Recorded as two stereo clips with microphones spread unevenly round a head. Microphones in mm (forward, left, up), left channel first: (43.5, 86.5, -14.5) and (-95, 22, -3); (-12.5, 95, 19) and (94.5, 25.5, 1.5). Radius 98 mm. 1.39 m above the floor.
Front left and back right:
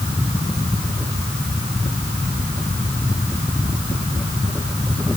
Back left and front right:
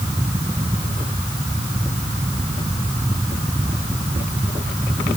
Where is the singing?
No singing in this recording.